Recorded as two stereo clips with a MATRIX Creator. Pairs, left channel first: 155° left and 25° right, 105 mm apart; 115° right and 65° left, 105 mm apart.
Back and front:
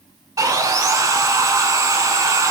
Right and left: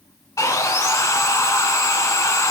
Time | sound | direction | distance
0.4 | sawing | 65° right | 0.6 m